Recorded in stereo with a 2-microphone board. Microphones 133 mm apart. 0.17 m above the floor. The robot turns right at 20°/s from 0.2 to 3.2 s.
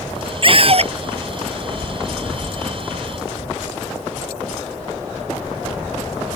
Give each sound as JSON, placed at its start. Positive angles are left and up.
{"t": 0.4, "sound": "a scream", "side_deg": -40}